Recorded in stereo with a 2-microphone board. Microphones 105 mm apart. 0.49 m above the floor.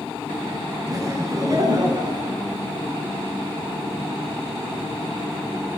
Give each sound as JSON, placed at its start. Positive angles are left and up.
{"t": 0.9, "sound": "laughter", "side_deg": -35, "distance_m": 4.0}